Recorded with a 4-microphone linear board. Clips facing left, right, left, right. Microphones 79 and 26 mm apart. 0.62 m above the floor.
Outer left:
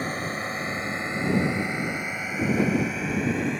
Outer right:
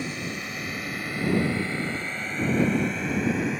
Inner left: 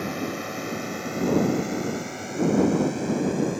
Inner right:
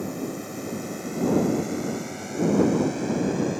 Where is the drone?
40° left (ahead or behind); by 3.6 s 5° right (ahead or behind).